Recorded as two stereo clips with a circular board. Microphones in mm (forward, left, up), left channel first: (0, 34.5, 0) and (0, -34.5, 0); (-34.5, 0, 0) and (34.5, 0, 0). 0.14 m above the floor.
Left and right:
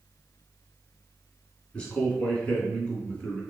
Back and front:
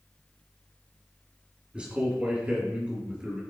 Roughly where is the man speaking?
Ahead left.